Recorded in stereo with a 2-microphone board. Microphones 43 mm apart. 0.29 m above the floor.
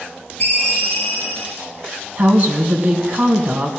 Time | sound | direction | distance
0.4 | a ringtone | 30° left (ahead or behind) | 5.5 m
2.2 | a woman speaking | 40° right (ahead or behind) | 2.0 m